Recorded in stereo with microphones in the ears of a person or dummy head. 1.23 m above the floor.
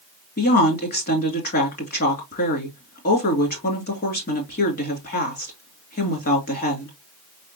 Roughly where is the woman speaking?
Left.